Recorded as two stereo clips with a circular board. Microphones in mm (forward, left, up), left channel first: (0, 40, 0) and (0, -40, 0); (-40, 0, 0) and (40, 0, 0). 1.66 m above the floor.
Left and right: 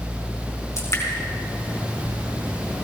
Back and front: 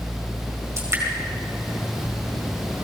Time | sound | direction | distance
0.8 | dripping | 50° left | 4.5 m